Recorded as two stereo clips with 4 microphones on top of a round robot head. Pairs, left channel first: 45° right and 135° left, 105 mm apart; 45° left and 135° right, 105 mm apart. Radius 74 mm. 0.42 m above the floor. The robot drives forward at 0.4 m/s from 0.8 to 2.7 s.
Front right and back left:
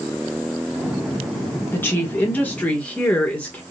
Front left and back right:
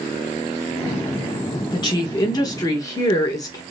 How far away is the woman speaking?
About 1.7 m.